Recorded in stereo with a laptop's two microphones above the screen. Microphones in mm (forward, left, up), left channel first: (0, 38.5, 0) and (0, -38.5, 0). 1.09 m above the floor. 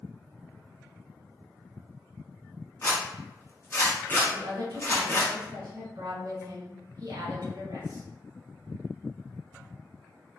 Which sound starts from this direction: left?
A zipper, at 2.8 s.